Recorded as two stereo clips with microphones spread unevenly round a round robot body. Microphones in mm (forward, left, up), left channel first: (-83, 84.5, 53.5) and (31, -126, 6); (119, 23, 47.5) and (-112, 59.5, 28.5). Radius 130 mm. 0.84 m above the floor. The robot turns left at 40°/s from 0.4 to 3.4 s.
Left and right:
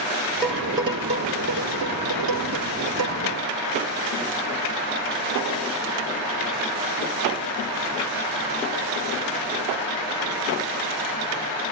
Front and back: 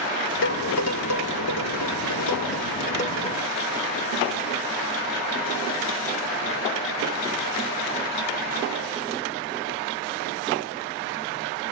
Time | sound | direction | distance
0.4 | dishes clattering | 30° left | 2.0 m